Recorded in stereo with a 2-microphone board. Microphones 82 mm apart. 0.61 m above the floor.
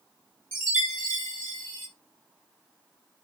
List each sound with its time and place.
0.5 s a chime: 30° right (ahead or behind), 2.5 m